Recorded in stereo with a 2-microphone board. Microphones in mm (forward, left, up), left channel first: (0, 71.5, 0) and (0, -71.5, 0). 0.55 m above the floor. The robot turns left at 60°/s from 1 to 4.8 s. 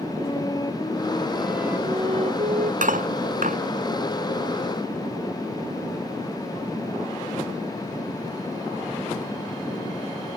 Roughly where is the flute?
Ahead left.